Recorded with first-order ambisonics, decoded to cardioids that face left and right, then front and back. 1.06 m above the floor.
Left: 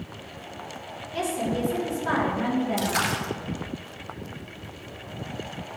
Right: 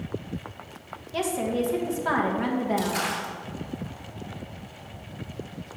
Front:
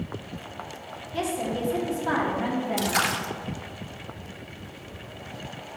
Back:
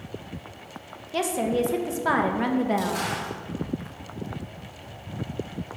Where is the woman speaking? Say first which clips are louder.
Right 1 dB, back 4 dB; 165° right, 0.9 m.